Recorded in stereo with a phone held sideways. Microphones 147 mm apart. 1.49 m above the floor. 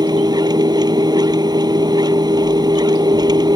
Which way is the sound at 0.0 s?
30° right (ahead or behind).